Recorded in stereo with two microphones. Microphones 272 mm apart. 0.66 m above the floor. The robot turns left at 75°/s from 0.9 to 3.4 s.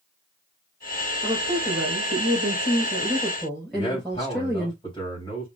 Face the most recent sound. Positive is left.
turn(degrees=15)  # may be behind; listen again after turning